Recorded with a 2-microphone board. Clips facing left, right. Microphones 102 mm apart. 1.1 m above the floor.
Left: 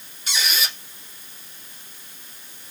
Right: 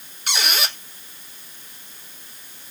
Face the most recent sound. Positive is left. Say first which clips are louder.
# right 2 dB
turn(degrees=-60)  # may be behind; listen again after turning